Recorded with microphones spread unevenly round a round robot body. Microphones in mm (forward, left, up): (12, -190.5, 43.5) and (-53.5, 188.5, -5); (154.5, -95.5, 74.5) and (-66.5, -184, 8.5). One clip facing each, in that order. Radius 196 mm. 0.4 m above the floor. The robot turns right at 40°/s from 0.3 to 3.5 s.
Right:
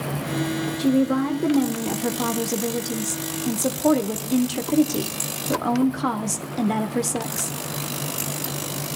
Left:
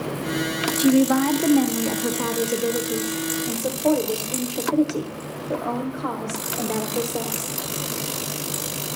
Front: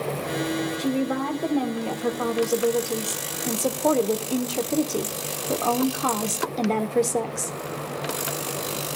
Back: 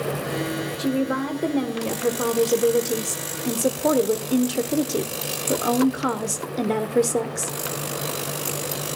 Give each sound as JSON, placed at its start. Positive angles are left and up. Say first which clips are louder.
{"t": 0.8, "sound": "a woman speaking", "louder": "left 3 dB, back 4 dB", "azimuth_deg": 140, "distance_m": 1.0}